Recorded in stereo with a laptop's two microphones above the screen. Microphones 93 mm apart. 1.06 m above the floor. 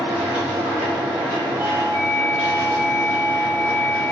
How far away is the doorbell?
About 0.9 m.